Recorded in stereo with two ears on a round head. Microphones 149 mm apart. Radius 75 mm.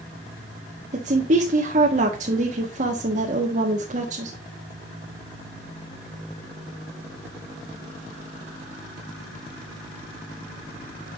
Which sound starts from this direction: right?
A woman speaking, at 0.9 s.